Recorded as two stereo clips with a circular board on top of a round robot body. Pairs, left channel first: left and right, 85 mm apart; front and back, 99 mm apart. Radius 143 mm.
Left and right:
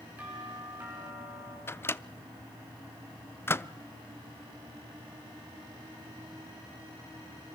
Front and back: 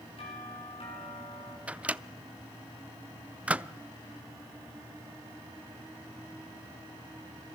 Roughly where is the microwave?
Behind left.